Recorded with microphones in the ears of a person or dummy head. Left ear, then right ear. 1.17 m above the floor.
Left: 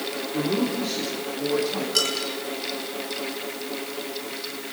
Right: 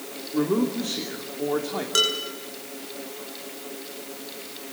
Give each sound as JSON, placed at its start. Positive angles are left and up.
{"t": 0.3, "sound": "a man speaking", "side_deg": -45, "distance_m": 2.5}
{"t": 1.9, "sound": "dishes clattering", "side_deg": -50, "distance_m": 9.0}